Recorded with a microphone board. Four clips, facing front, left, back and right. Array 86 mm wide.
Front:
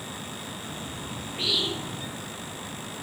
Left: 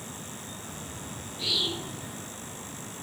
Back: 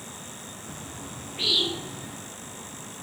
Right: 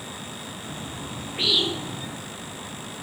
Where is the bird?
85° right, 7 m.